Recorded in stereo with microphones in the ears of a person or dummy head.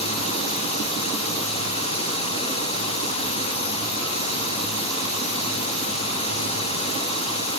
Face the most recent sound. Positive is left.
turn(degrees=40)  # may be behind; listen again after turning